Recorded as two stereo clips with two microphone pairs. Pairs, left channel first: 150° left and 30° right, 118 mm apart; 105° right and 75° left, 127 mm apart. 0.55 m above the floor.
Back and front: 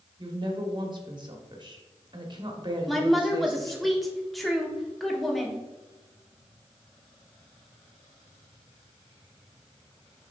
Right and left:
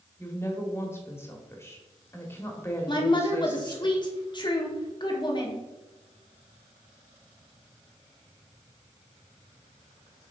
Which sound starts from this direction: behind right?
A woman speaking, at 2.9 s.